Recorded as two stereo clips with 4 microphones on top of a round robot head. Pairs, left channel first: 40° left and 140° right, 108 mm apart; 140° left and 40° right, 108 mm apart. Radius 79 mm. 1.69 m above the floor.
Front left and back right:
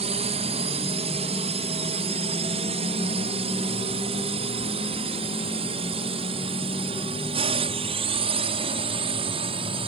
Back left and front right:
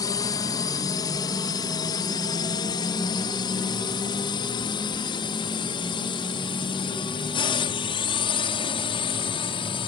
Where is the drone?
165° right; by 9.9 s straight behind.